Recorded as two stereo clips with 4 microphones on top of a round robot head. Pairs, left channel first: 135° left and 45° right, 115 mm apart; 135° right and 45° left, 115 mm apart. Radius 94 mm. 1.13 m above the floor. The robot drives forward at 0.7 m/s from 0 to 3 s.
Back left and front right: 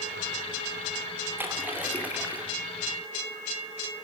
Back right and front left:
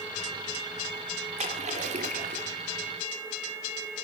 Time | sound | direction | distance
1.4 | a splash | 30° left | 4 m